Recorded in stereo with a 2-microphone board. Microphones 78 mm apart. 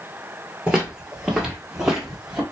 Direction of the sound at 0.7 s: 10° right (ahead or behind).